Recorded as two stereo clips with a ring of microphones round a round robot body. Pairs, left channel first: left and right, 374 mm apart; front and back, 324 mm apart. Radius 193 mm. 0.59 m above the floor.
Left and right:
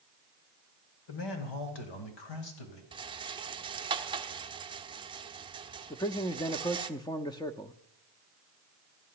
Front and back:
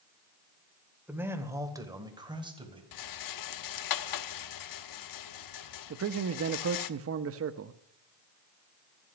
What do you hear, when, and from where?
1.1 s a man speaking: 95° left, 2.5 m; by 2.8 s 105° left, 3.5 m
2.9 s a rattle: 15° right, 0.8 m
5.9 s a man speaking: 165° left, 0.7 m